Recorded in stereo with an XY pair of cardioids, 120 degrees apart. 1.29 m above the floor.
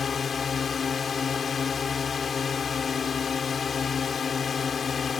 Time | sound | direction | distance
0.0 | a drone | 35° left | ?